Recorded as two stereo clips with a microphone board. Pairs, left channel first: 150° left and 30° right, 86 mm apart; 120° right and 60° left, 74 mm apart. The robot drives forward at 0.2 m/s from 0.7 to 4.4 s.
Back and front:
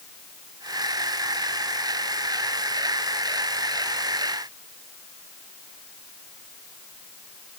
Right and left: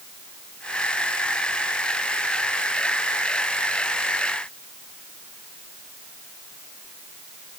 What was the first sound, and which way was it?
Only background noise.